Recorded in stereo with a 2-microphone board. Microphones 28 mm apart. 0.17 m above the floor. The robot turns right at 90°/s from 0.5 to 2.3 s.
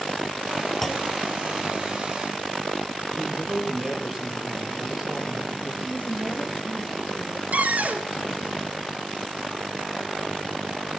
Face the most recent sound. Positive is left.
turn(degrees=-65)  # may be behind; listen again after turning